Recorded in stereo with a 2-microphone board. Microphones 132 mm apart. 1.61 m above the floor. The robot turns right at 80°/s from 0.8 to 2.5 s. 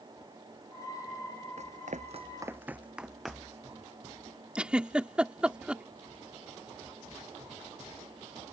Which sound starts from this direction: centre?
A giggle, at 4.5 s.